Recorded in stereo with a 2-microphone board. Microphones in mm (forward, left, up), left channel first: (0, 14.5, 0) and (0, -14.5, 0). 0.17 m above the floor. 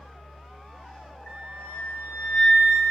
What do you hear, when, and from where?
1.3 s a flute: 60° left (ahead or behind), 6 m